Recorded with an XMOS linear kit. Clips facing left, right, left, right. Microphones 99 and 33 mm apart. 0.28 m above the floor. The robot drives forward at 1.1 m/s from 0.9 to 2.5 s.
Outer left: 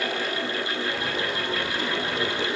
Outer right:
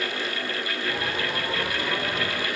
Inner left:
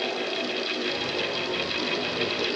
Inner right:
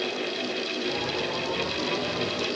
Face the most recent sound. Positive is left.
No sound to turn to.